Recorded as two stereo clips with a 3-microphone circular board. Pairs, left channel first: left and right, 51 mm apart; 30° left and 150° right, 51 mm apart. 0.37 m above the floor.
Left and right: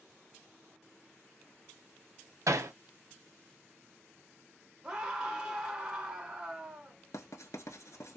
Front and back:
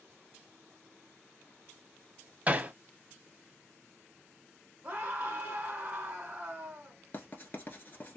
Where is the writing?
80° left, 0.9 m.